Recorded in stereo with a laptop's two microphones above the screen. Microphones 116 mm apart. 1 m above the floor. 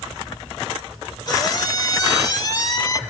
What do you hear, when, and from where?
1.3 s a squeak: 35° left (ahead or behind), 1.1 m